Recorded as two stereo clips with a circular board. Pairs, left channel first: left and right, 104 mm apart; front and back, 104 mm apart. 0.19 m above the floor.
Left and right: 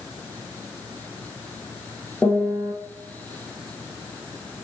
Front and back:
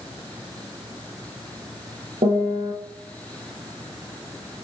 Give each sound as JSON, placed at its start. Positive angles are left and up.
{"t": 2.2, "sound": "a piano", "azimuth_deg": 165, "distance_m": 2.5}